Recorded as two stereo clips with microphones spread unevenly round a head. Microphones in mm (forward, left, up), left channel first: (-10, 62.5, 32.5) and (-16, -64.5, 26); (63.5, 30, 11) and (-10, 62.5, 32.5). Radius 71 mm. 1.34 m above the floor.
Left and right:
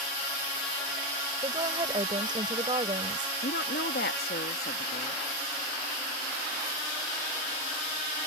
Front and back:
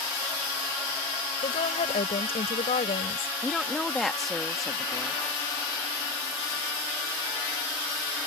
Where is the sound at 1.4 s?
30° right.